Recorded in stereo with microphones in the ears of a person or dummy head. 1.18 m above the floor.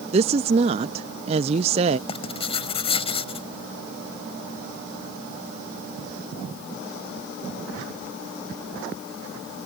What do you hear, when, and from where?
0.1 s a woman speaking: 35° right (ahead or behind)
2.1 s writing: 40° left (ahead or behind)